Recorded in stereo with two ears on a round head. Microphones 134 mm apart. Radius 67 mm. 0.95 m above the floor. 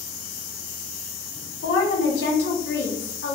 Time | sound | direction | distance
1.6 | a woman speaking | 80° left | 1.2 m